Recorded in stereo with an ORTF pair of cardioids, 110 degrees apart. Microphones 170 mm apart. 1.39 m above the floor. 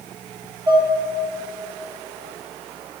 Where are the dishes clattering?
20° right, 3 m.